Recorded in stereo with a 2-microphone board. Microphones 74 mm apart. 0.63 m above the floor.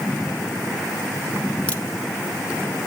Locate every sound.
1.7 s a crack: 15° left (ahead or behind), 1.0 m